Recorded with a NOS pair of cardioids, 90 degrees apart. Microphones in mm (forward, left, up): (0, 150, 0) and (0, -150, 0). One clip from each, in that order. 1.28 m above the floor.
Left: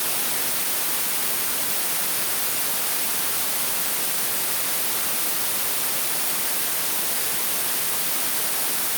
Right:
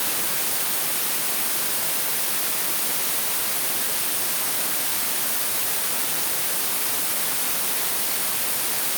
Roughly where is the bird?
No bird in this recording.